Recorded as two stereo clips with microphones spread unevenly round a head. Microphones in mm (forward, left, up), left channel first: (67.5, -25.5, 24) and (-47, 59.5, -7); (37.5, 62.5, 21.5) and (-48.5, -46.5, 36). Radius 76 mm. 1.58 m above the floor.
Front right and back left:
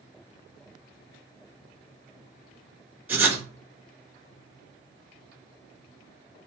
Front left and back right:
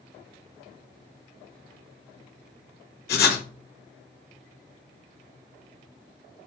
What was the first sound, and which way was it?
Writing, 65° left.